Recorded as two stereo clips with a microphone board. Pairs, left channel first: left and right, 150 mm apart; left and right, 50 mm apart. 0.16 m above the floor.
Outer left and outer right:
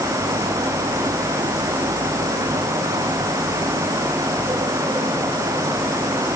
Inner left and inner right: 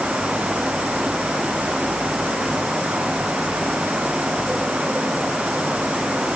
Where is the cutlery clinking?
I don't hear cutlery clinking.